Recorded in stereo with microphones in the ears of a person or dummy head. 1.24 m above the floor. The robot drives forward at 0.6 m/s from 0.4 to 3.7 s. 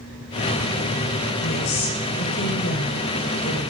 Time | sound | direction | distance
1.4 | a woman speaking | 55° left (ahead or behind) | 5 m